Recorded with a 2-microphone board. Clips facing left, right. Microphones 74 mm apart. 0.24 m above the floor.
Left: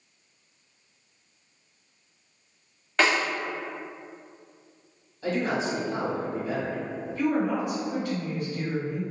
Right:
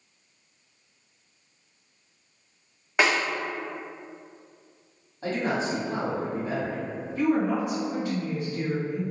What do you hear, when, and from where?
3.0 s a snare drum: 15° right (ahead or behind), 0.8 m
5.2 s a man speaking: 40° right (ahead or behind), 1.5 m
7.2 s a woman speaking: 20° right (ahead or behind), 1.9 m